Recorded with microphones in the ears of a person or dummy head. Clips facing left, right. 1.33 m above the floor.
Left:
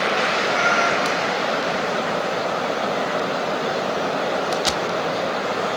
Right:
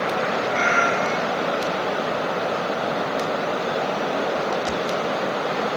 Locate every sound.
0.5 s a cat meowing: 30° right (ahead or behind), 2.5 m